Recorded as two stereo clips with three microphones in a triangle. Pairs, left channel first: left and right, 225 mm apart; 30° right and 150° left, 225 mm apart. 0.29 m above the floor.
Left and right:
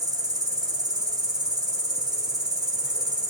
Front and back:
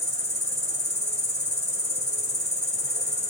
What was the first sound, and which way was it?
An insect, 35° right.